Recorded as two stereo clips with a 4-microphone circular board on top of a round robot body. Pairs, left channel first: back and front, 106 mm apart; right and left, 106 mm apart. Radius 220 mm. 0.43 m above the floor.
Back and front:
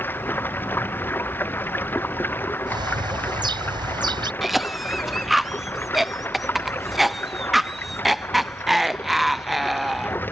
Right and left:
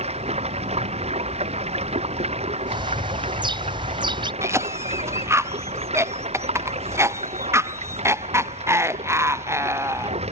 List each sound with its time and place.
0.0 s running water: 110° left
2.7 s a bird: 50° left
4.4 s a cough: 90° left